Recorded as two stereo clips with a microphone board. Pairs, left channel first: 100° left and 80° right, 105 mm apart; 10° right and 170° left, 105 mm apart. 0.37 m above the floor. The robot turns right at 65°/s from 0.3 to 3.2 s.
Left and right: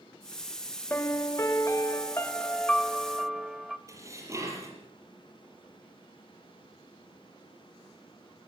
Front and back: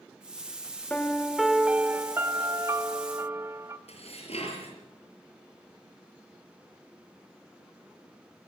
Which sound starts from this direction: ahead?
Dishes clattering, at 3.9 s.